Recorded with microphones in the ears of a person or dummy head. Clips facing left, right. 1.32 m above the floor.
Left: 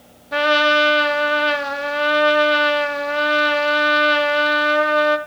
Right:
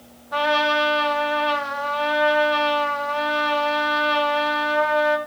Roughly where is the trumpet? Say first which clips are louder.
Left 4 dB; left.